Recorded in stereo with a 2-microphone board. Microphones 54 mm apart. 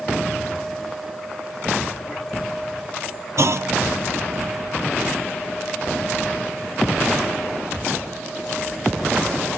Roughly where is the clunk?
Right.